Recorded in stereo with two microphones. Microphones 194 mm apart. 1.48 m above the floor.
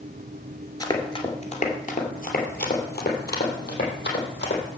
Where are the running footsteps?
20° left (ahead or behind), 1.5 m; by 4.6 s 70° left (ahead or behind), 3.5 m.